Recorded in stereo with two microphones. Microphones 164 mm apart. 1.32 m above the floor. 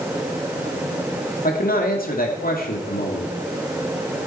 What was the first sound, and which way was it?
A man speaking, 60° left (ahead or behind).